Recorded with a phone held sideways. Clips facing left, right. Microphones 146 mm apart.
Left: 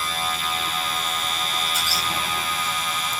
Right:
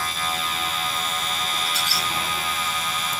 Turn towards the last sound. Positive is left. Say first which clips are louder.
# even
turn(degrees=-70)  # may be behind; listen again after turning